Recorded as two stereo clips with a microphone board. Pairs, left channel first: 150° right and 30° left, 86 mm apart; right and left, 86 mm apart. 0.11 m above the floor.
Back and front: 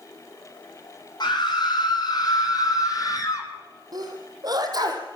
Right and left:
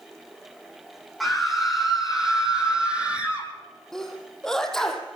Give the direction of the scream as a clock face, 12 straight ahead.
6 o'clock.